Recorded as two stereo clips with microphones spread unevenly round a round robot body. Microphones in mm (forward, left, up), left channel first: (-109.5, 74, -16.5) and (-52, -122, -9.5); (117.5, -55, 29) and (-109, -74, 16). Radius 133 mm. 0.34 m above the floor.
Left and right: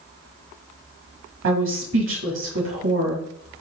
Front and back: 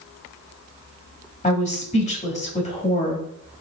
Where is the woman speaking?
50° right, 2 m.